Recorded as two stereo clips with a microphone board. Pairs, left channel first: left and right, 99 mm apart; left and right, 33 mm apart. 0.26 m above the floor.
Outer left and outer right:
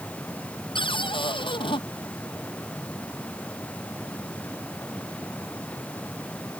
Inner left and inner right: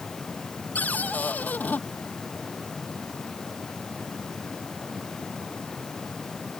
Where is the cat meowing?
I don't hear a cat meowing.